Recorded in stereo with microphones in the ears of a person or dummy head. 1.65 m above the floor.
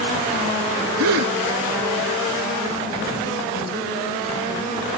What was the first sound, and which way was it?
A gasp, 70° right (ahead or behind).